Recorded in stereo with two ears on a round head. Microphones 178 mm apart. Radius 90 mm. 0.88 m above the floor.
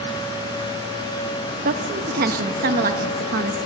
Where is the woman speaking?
45° right (ahead or behind), 1.4 m.